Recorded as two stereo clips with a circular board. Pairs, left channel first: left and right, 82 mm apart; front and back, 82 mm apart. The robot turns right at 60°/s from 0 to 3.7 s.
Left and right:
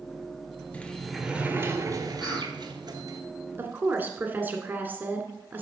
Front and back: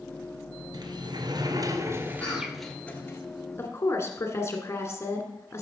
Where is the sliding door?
160° left, 1.3 m; by 3.2 s 55° right, 1.3 m.